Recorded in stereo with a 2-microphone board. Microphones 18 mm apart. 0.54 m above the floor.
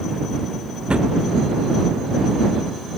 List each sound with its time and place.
0.9 s a drawer: 65° right (ahead or behind)